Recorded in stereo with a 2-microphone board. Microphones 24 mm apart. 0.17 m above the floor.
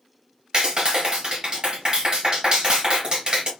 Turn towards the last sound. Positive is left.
turn(degrees=-40)  # may be behind; listen again after turning